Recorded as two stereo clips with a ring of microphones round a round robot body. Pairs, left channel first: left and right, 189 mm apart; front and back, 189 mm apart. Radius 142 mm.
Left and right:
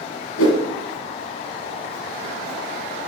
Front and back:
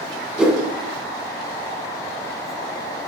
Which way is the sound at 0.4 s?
95° left.